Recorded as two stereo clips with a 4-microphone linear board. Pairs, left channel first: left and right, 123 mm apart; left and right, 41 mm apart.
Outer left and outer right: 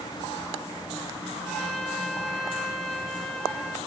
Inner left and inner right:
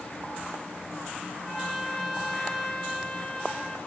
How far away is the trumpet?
About 3 m.